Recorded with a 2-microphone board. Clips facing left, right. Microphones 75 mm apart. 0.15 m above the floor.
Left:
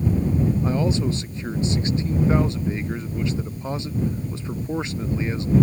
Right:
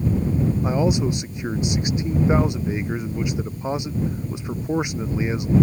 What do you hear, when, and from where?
0.6 s a man speaking: 15° right (ahead or behind)